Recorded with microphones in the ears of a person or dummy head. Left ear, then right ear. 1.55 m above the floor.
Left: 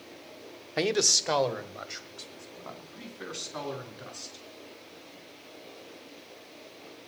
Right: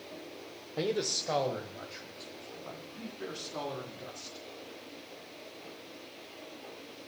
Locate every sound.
0.8 s a man speaking: 70° left (ahead or behind), 0.7 m; by 4.4 s 80° left, 4.5 m